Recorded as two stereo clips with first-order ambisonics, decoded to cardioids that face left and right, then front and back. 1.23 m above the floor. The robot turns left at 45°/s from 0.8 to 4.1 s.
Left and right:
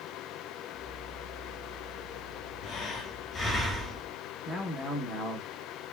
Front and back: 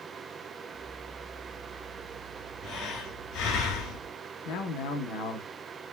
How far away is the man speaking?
About 1.0 m.